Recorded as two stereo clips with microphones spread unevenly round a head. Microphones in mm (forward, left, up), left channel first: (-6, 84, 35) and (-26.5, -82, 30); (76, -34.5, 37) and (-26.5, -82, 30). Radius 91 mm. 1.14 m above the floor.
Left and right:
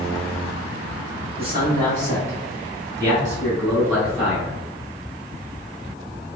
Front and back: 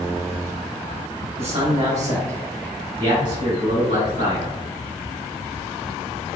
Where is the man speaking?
125° right, 1.6 m; by 4.6 s 175° right, 3.5 m.